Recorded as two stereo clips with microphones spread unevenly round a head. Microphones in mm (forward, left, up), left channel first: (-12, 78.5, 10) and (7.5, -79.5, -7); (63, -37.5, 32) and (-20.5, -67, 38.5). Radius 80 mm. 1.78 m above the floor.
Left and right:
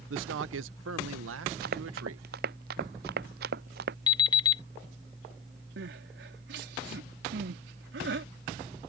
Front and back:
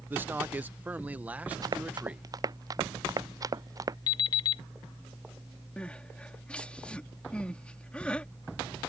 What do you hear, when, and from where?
0.1 s a man speaking: 95° right; by 2.2 s 85° right
1.6 s running footsteps: 115° right
4.1 s an alarm clock: 60° left
5.8 s crying: 60° right